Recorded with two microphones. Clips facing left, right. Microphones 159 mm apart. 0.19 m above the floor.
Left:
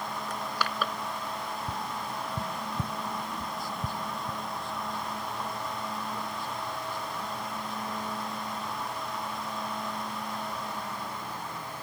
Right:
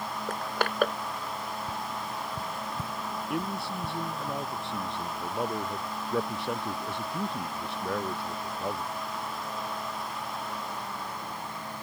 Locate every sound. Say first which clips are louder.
0.3 s crushing: right 5 dB; 55° right (ahead or behind)
1.7 s tapping: even; 15° left (ahead or behind)
3.3 s a man speaking: right 4 dB; 70° right (ahead or behind)